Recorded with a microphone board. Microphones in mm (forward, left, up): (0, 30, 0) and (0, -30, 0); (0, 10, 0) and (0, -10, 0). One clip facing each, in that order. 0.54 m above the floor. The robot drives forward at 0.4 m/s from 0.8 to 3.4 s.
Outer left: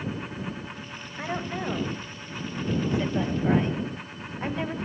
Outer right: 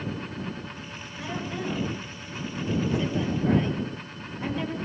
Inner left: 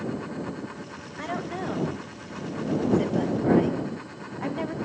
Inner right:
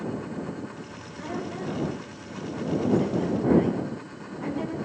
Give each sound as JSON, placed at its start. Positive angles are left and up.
{"t": 1.2, "sound": "a woman speaking", "side_deg": 45, "distance_m": 2.0}